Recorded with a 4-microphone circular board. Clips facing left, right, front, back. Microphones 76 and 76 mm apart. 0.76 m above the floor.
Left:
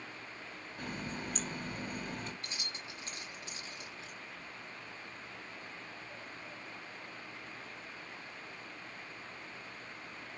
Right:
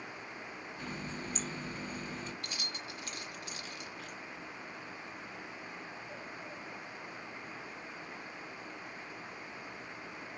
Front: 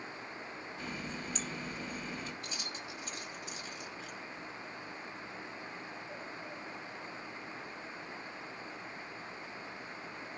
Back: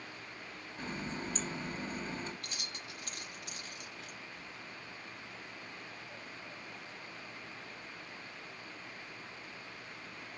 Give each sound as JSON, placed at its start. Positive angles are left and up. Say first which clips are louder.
{"t": 0.8, "sound": "a running tap", "louder": "left 2 dB, back 3 dB", "azimuth_deg": 125, "distance_m": 3.0}
{"t": 2.4, "sound": "keys jangling", "louder": "right 2 dB, front 3 dB", "azimuth_deg": 150, "distance_m": 1.5}